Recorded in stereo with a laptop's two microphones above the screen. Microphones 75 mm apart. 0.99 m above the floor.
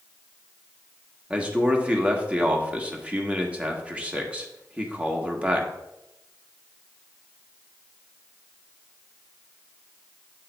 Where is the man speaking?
15° right (ahead or behind), 1.5 m.